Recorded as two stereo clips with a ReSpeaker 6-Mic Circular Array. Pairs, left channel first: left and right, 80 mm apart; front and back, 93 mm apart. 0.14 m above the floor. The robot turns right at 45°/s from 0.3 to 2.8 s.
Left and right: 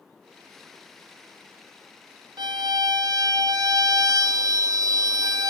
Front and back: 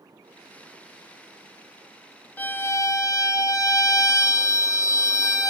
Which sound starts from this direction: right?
A violin, at 2.4 s.